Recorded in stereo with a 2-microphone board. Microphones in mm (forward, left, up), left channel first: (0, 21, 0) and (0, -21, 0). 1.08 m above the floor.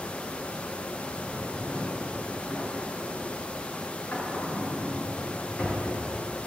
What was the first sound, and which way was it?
A drawer, 60° left (ahead or behind).